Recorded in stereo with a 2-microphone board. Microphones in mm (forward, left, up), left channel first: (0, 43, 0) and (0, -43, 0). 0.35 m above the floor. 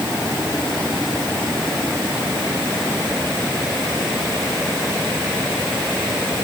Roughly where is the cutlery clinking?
No cutlery clinking in this recording.